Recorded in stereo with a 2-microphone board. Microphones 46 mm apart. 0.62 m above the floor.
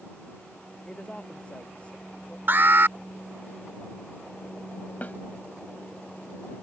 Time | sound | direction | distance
0.8 | a woman speaking | 25° left (ahead or behind) | ?
2.5 | an alarm | 55° right (ahead or behind) | ?
5.0 | a snare drum | 40° left (ahead or behind) | ?